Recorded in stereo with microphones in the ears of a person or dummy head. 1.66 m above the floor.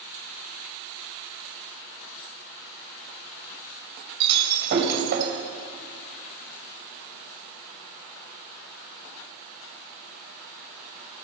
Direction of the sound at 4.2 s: 65° right (ahead or behind).